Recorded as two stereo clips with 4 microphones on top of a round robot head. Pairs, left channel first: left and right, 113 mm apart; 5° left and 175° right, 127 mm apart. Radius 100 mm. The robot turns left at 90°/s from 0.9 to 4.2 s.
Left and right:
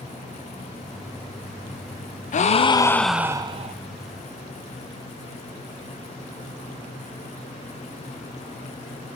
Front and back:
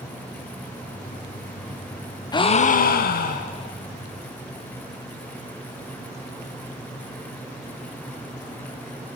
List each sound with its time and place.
2.3 s a gasp: 70° left, 0.5 m; by 3.8 s 60° right, 0.5 m